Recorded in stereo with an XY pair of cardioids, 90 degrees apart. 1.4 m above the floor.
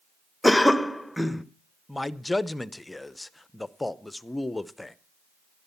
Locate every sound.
0.4 s a cough: 10° left, 1.0 m
1.9 s a man speaking: 15° left, 0.7 m